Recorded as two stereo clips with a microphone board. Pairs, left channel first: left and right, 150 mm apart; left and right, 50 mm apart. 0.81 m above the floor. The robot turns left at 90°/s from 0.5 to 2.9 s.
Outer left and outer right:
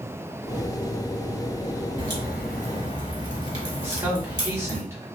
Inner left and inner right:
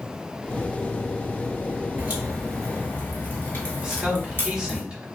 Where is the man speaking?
15° right (ahead or behind), 1.6 m.